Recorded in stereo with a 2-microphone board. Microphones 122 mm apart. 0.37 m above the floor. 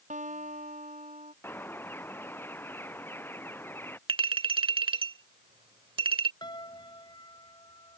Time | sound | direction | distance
0.1 | a guitar | 85° right | ?
1.4 | a bird | 20° left (ahead or behind) | ?
4.1 | a clink | 45° right (ahead or behind) | ?
6.4 | a piano | 35° left (ahead or behind) | ?